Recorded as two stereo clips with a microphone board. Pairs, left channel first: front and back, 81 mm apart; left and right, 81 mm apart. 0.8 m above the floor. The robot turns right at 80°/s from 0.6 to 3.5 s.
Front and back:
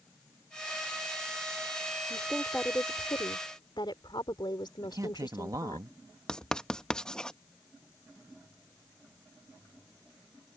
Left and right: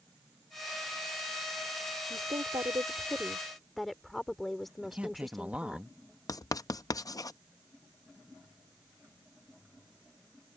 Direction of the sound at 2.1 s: 110° right.